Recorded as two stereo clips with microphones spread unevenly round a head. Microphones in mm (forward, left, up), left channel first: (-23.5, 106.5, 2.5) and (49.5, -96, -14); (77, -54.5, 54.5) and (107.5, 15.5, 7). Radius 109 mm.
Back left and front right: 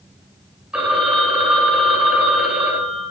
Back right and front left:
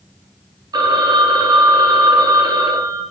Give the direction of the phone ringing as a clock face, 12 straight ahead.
11 o'clock.